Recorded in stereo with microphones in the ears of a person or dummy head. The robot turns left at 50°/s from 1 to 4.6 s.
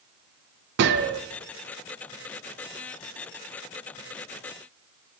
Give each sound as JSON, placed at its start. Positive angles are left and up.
{"t": 0.8, "sound": "a gunshot", "side_deg": -65, "distance_m": 0.6}